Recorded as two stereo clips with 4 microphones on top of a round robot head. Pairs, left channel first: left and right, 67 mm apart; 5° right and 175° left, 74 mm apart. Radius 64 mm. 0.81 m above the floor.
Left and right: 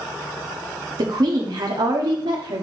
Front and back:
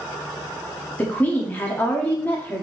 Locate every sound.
1.0 s a woman speaking: 75° right, 1.7 m